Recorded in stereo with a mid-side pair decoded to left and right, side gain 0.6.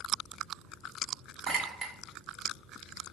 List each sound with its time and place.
1.5 s a clink: 40° right, 1.2 m